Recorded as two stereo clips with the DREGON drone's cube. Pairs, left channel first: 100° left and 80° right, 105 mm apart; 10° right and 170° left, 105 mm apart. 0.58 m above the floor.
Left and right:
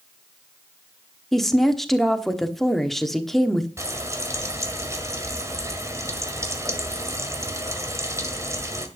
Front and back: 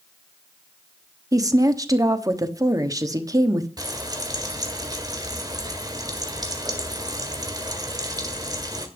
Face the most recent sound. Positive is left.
turn(degrees=-140)